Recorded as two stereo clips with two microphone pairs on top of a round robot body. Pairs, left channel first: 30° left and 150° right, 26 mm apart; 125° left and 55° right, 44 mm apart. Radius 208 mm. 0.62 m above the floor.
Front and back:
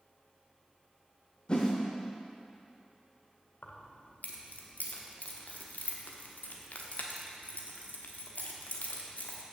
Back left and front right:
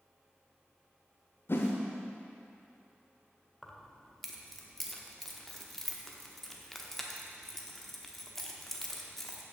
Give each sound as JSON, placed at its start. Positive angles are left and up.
{"t": 1.5, "sound": "a whoosh", "azimuth_deg": 90, "distance_m": 0.7}
{"t": 3.6, "sound": "keys jangling", "azimuth_deg": 40, "distance_m": 1.1}